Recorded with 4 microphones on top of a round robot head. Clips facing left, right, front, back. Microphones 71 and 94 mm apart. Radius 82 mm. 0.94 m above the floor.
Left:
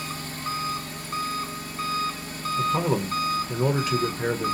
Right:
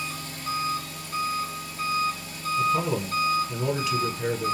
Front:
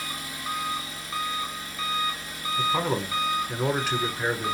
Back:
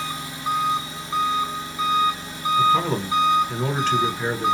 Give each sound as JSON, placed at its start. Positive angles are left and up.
{"t": 0.0, "sound": "an engine running", "azimuth_deg": 120, "distance_m": 0.8}
{"t": 2.6, "sound": "a man speaking", "azimuth_deg": 80, "distance_m": 0.8}